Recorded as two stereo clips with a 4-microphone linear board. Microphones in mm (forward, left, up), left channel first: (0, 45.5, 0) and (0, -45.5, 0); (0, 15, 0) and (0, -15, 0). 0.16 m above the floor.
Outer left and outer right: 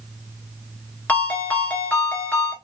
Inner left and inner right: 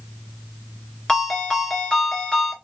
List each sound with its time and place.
1.1 s a ringtone: 15° left (ahead or behind), 1.3 m